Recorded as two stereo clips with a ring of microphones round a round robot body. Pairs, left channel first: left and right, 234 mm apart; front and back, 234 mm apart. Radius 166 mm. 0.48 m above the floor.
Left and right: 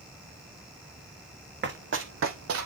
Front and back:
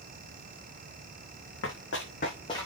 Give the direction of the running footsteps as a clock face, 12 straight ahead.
2 o'clock.